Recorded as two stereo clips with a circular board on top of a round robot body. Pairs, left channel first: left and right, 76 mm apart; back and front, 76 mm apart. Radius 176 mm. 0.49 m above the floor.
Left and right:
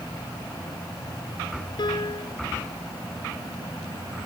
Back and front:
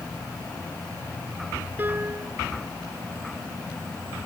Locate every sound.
1.8 s a piano: 65° left